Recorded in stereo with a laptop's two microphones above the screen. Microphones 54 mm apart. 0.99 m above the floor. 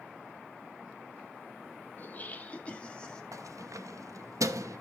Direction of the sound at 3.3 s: 85° right.